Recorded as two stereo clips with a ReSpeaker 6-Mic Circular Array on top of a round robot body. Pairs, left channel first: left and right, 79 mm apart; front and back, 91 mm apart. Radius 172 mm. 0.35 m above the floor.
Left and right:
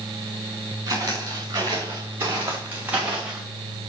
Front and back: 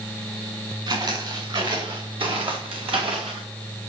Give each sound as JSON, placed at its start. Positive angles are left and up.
{"t": 0.9, "sound": "footsteps", "azimuth_deg": -140, "distance_m": 5.5}